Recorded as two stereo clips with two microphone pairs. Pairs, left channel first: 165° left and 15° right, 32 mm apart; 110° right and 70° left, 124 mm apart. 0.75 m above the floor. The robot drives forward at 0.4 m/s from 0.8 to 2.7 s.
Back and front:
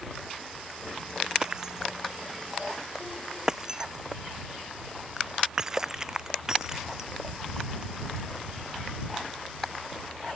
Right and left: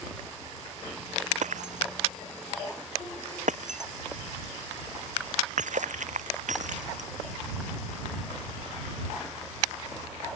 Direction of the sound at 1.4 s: 50° left.